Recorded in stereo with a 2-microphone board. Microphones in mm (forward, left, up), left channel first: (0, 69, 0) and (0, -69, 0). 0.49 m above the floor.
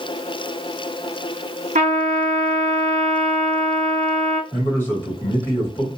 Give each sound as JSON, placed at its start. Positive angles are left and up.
{"t": 1.8, "sound": "a trumpet", "side_deg": -75, "distance_m": 0.9}
{"t": 4.5, "sound": "a man speaking", "side_deg": 15, "distance_m": 2.5}